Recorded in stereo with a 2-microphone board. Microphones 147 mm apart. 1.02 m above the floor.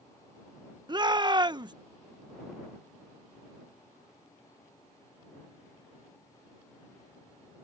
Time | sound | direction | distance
0.9 | a shout | 30° right (ahead or behind) | ?